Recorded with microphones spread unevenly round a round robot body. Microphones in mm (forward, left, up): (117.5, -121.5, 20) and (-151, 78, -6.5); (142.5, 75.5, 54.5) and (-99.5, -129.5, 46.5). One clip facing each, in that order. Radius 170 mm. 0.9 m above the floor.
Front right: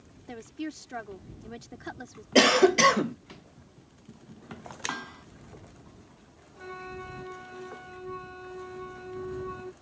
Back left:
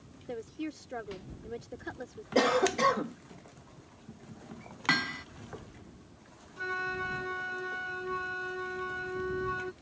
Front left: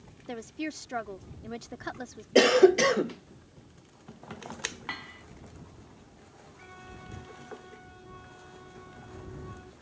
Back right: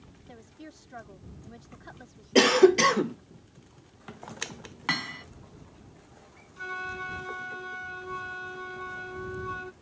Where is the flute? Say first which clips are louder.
Back left 1 dB, back right 9 dB; 165° right.